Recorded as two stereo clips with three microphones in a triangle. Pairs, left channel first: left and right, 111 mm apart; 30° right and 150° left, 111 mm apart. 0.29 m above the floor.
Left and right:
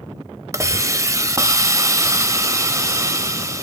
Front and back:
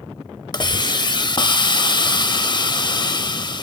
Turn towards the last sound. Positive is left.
turn(degrees=-40)